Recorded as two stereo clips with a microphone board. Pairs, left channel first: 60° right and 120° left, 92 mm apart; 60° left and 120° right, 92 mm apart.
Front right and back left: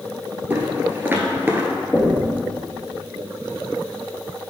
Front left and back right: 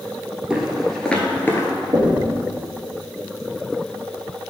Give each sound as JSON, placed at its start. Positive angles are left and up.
{"t": 0.5, "sound": "footsteps", "azimuth_deg": 165, "distance_m": 1.2}
{"t": 1.9, "sound": "knocking", "azimuth_deg": -145, "distance_m": 1.6}